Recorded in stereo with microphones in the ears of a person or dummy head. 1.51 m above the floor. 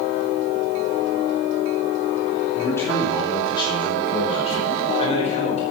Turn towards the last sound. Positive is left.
turn(degrees=40)  # may be behind; listen again after turning